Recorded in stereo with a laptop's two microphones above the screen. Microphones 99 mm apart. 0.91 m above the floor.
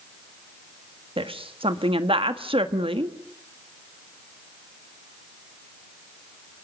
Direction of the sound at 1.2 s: 70° right (ahead or behind).